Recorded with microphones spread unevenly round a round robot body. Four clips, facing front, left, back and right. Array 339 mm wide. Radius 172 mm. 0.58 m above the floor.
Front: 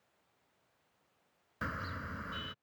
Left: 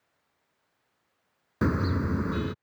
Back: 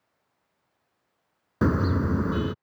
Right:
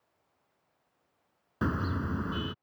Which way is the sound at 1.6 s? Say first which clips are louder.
Left 5 dB, back 17 dB; 165° left.